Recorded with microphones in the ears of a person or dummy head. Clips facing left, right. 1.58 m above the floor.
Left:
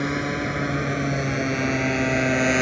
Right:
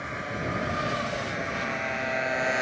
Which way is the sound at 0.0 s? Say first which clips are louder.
Left 9 dB; 60° left (ahead or behind).